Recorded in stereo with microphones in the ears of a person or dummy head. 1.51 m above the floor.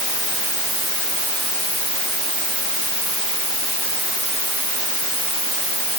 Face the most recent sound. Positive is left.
No sound to turn to.